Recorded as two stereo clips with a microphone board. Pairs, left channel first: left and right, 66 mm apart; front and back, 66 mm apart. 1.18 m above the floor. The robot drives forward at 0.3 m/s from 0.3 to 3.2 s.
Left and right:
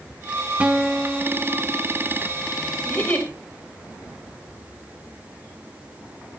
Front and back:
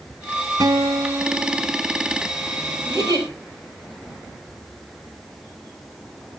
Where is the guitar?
160° right, 0.9 m; by 1.8 s 165° right, 1.3 m.